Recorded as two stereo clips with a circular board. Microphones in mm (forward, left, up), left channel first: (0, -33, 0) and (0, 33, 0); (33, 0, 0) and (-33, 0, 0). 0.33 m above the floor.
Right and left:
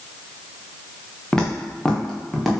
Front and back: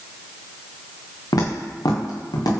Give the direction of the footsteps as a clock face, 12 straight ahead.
12 o'clock.